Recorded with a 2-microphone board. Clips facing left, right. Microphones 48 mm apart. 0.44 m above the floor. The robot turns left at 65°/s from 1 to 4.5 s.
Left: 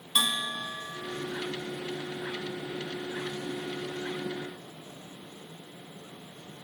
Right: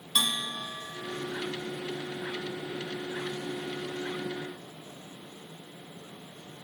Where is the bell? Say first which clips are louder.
Left 1 dB; 5° left (ahead or behind), 0.8 m; by 1.3 s 15° right (ahead or behind), 0.8 m.